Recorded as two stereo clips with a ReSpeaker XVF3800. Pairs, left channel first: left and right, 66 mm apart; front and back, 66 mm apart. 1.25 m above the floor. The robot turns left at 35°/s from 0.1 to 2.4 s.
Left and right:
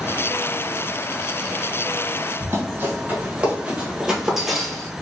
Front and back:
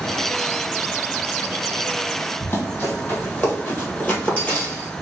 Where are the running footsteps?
55° right, 2 m; by 4.9 s 30° left, 1.3 m.